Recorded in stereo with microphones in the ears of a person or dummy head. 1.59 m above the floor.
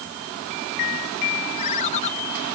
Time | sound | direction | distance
1.6 | a ringtone | 40° left (ahead or behind) | ?